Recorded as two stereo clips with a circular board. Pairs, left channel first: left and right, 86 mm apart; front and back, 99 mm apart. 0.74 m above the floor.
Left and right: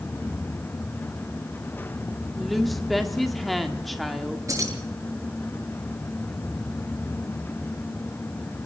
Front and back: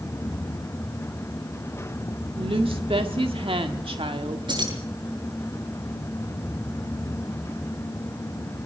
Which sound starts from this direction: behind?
A woman speaking, at 2.4 s.